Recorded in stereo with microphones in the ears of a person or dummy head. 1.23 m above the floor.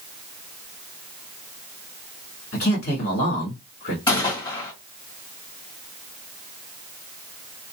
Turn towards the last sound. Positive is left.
turn(degrees=20)  # may be behind; listen again after turning